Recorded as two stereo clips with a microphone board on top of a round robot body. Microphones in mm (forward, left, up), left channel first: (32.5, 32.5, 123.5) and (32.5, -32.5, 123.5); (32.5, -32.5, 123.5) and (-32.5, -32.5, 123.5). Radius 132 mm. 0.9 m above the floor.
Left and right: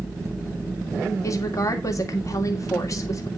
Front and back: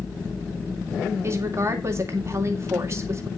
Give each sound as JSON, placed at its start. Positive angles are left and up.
{"t": 1.2, "sound": "a woman speaking", "azimuth_deg": 130, "distance_m": 2.0}